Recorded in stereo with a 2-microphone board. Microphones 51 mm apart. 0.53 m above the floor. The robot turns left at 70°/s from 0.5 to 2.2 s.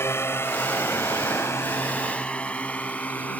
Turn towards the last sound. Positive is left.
turn(degrees=30)  # may be behind; listen again after turning